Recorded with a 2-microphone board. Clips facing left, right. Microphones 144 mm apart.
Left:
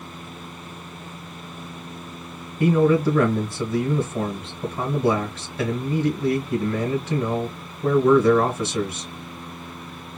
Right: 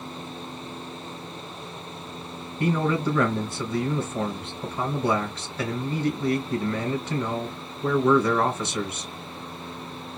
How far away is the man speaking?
About 1.3 m.